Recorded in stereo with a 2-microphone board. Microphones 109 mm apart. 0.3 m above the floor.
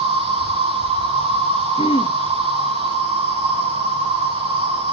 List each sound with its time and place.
0.0 s an insect: 65° right (ahead or behind), 4.5 m
1.8 s throat clearing: 60° left (ahead or behind), 0.9 m